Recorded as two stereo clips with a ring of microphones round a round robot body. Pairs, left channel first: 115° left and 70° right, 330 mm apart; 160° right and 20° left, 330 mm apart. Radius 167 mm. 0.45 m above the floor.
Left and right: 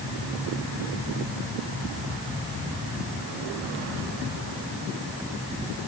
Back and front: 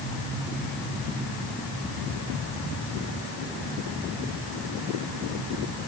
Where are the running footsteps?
No running footsteps in this recording.